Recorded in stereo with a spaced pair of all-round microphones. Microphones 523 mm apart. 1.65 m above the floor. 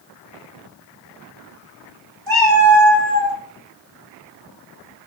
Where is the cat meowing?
45° right (ahead or behind), 1.5 m.